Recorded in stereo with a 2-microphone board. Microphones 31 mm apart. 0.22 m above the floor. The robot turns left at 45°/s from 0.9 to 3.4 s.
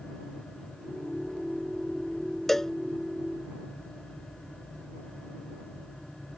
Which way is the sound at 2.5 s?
10° left (ahead or behind).